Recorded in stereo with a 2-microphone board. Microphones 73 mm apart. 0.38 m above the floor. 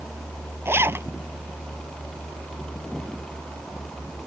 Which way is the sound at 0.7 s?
35° right (ahead or behind).